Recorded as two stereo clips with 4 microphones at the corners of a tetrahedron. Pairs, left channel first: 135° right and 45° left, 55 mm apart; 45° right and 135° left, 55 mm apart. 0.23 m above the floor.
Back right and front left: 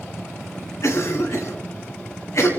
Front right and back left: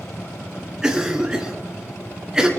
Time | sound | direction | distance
0.8 | a cough | 150° right | 2 m